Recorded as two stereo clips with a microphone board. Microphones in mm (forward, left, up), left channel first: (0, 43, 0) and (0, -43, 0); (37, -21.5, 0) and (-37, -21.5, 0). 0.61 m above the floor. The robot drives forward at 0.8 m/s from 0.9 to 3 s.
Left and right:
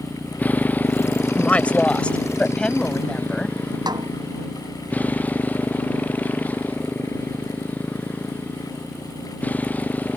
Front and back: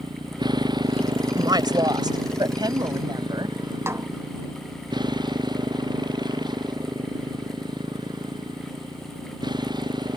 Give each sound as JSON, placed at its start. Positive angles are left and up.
{"t": 0.0, "sound": "a motorcycle", "azimuth_deg": 160}
{"t": 1.4, "sound": "a woman speaking", "azimuth_deg": 165}
{"t": 3.9, "sound": "a snare drum", "azimuth_deg": -125}